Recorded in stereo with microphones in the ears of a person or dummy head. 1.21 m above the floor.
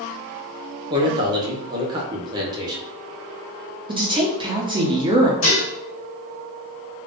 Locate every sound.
0.9 s a man speaking: 20° right (ahead or behind), 0.7 m
3.9 s a woman speaking: 20° right (ahead or behind), 0.6 m
5.4 s dishes clattering: 40° left (ahead or behind), 1.1 m